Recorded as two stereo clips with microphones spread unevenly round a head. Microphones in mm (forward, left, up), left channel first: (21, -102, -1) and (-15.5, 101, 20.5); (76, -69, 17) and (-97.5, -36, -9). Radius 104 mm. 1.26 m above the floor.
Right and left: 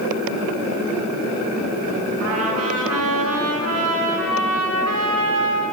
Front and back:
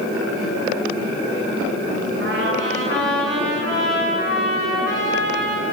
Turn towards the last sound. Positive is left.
turn(degrees=125)